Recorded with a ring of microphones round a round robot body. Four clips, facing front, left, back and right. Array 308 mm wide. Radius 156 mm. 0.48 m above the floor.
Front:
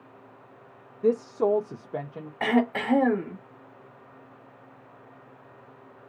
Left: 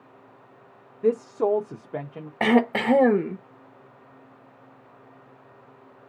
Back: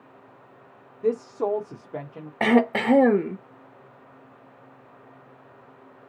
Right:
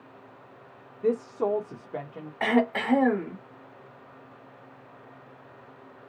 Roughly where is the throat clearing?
Behind left.